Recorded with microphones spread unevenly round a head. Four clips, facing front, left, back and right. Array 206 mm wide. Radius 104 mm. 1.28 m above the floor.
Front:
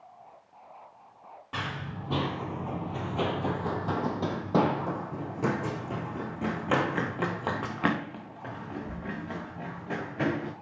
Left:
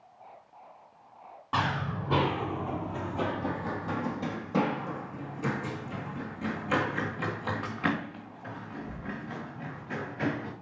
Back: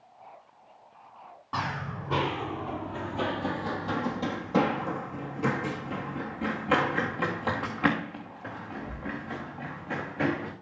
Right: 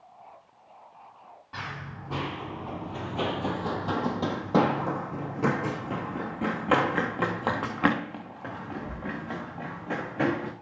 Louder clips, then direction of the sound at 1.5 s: Left 9 dB, back 4 dB; 90° left.